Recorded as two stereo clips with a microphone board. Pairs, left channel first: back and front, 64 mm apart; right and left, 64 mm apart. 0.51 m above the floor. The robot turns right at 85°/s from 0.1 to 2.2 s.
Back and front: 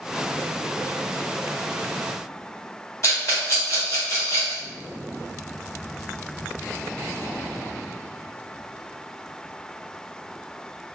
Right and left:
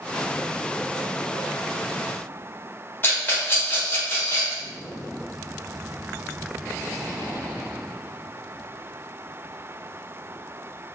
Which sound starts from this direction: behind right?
A rattle, at 3.0 s.